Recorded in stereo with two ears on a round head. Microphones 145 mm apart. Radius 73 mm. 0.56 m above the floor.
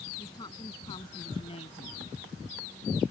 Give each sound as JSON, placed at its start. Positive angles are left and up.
{"t": 0.2, "sound": "a woman speaking", "side_deg": 25}